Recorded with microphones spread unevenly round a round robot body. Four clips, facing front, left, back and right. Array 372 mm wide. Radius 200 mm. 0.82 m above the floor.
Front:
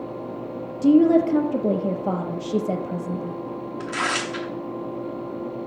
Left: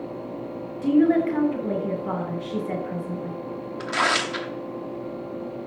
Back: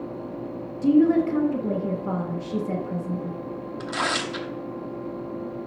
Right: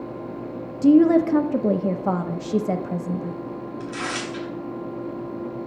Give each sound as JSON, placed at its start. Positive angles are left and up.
{"t": 0.8, "sound": "a woman speaking", "azimuth_deg": -75, "distance_m": 0.6}
{"t": 3.8, "sound": "tearing paper", "azimuth_deg": 90, "distance_m": 1.1}